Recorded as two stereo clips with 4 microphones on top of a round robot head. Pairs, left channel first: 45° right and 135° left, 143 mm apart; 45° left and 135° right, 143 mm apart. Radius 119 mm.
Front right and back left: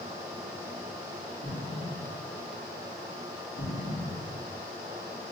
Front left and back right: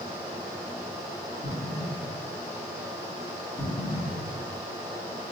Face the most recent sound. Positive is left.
turn(degrees=-10)